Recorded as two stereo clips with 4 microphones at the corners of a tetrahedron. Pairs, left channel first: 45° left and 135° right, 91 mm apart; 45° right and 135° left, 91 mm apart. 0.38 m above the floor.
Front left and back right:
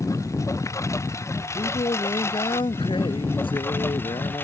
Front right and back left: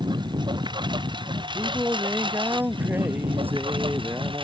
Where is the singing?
65° left.